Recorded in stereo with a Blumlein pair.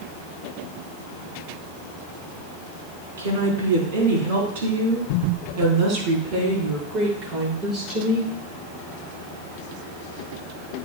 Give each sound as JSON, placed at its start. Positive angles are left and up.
{"t": 3.2, "sound": "a woman speaking", "azimuth_deg": -60, "distance_m": 4.0}